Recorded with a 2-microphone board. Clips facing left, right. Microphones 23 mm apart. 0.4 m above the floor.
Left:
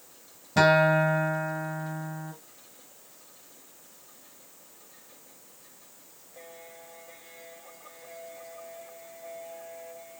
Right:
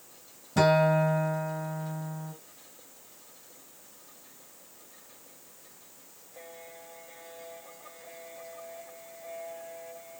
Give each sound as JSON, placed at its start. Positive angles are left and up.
{"t": 0.6, "sound": "a guitar", "side_deg": 40, "distance_m": 1.4}